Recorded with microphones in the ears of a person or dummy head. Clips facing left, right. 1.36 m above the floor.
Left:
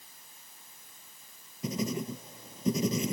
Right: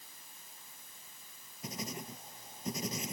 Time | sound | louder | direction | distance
1.6 | writing | left 10 dB | 70° left (ahead or behind) | ?